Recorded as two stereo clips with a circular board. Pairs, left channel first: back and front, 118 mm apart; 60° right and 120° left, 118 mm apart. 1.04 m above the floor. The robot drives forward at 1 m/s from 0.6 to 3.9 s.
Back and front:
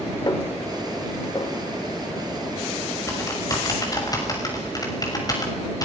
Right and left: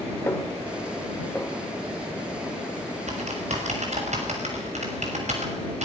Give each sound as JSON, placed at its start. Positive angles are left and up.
{"t": 0.3, "sound": "a snare drum", "azimuth_deg": -125, "distance_m": 2.0}
{"t": 3.1, "sound": "typing on a keyboard", "azimuth_deg": 115, "distance_m": 5.5}